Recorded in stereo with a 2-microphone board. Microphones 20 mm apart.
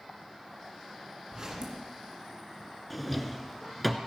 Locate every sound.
1.3 s a zipper: 30° right (ahead or behind), 2.5 m
2.9 s a drawer: 5° left (ahead or behind), 0.8 m